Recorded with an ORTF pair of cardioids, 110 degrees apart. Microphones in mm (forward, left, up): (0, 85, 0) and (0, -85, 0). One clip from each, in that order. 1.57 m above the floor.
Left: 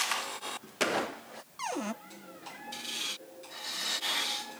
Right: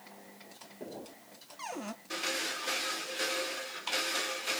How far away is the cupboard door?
About 0.7 m.